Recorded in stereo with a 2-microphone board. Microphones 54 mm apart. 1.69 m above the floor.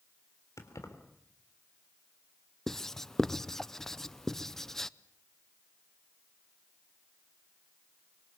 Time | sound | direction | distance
0.6 | keys jangling | 70° left (ahead or behind) | 3.5 m
2.7 | writing | 5° left (ahead or behind) | 0.6 m